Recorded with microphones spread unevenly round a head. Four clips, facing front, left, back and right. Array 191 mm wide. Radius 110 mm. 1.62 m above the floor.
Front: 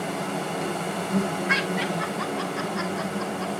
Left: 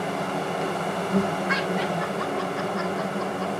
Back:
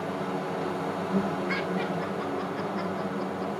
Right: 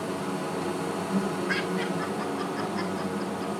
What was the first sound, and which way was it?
An insect, 75° left.